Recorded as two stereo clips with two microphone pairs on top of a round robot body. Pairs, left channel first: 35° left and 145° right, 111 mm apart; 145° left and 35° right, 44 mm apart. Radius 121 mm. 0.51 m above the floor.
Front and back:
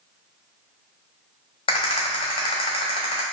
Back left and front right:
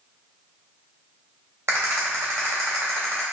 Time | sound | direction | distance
1.7 | a rattle | 5° right | 1.0 m